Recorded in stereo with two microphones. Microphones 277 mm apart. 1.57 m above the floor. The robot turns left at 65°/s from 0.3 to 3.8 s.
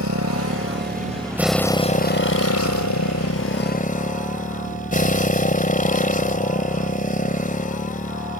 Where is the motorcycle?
100° right; by 8.4 s 30° left.